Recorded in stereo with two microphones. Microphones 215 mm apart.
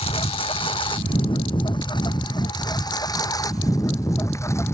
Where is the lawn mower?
25° left (ahead or behind); by 4.7 s 10° left (ahead or behind).